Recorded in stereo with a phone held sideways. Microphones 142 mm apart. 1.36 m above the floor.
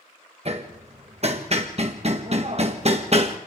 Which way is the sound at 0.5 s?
50° right (ahead or behind).